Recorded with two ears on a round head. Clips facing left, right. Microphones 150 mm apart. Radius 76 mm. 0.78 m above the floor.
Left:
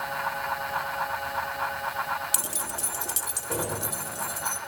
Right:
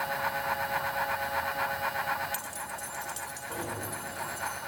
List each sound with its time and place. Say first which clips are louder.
2.3 s keys jangling: left 3 dB; 60° left (ahead or behind), 0.9 m; by 4.6 s 50° left (ahead or behind), 4 m